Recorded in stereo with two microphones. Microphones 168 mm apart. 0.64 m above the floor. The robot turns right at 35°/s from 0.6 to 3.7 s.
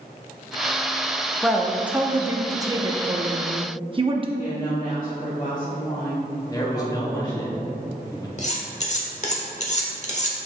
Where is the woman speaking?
30° left (ahead or behind), 1.5 m.